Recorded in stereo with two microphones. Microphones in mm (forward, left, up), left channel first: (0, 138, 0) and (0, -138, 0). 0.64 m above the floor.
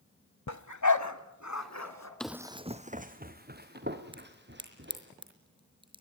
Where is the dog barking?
70° left (ahead or behind), 1.0 m; by 2.1 s 65° left (ahead or behind), 3 m.